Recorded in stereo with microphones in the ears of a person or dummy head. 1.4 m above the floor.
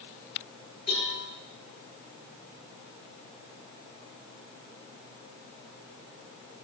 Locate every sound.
0.9 s a cowbell: 30° left (ahead or behind), 9 m